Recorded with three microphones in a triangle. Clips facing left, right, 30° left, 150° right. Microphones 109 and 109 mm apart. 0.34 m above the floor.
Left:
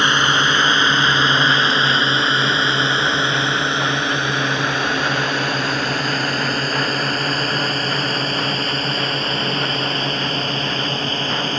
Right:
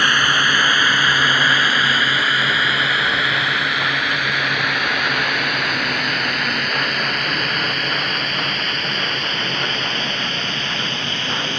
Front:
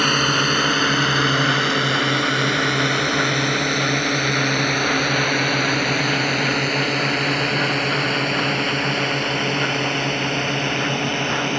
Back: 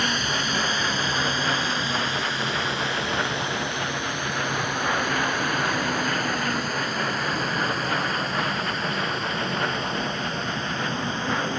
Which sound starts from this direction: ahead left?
A drone, at 0.0 s.